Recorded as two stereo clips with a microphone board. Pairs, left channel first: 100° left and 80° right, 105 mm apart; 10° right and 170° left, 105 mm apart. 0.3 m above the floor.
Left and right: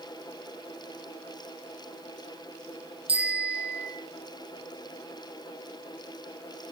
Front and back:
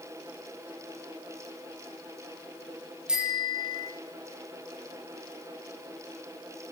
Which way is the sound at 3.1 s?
110° right.